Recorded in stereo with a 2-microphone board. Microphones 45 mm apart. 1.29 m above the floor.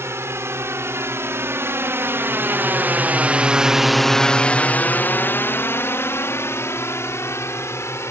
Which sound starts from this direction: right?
A drone, at 0.0 s.